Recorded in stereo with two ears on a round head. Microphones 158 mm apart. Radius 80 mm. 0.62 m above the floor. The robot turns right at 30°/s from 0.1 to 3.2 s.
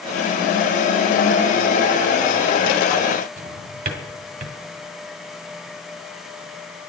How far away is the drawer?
About 1.4 m.